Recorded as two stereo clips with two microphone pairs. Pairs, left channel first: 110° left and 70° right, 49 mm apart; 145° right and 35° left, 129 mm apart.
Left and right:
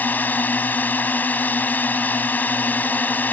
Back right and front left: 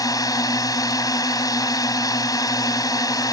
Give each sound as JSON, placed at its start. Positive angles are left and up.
{"t": 0.0, "sound": "a drone", "azimuth_deg": 155}